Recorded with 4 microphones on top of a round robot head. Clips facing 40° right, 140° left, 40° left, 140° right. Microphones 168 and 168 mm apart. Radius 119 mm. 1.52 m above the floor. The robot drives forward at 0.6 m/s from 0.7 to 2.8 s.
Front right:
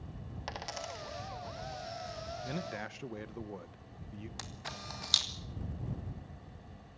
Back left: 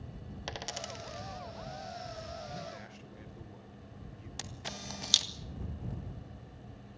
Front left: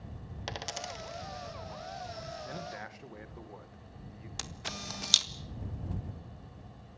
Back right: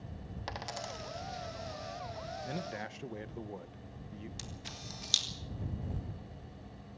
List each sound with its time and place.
0.5 s a dropped coin: 95° left, 1.0 m; by 1.2 s 125° left, 1.0 m
2.4 s a man speaking: 65° right, 1.4 m; by 4.3 s 75° right, 1.3 m
4.4 s a camera shutter: 75° left, 1.8 m